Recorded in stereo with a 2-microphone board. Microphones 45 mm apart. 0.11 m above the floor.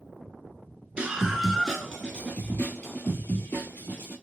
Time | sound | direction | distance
1.0 | a scream | 20° right (ahead or behind) | 1.1 m